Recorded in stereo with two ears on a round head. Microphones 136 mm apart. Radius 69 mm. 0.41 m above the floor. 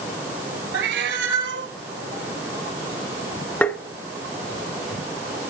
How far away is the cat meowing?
About 1.2 m.